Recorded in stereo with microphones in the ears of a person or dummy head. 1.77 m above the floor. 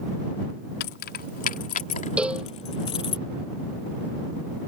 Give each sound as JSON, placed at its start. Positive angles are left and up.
{"t": 0.8, "sound": "keys jangling", "side_deg": 55}
{"t": 2.2, "sound": "a cowbell", "side_deg": 0}